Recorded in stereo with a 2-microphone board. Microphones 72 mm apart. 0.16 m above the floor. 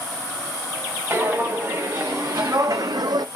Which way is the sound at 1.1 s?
30° right (ahead or behind).